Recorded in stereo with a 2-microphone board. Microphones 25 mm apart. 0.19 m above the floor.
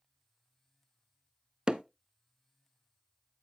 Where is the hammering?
30° right (ahead or behind), 0.5 m.